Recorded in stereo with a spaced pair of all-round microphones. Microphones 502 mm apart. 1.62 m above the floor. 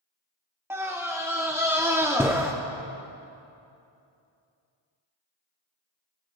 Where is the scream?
5° right (ahead or behind), 0.6 m.